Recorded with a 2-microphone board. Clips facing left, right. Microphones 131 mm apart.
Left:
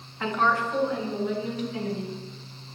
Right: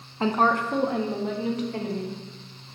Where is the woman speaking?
30° right (ahead or behind), 0.8 m; by 2.1 s 75° right (ahead or behind), 3 m.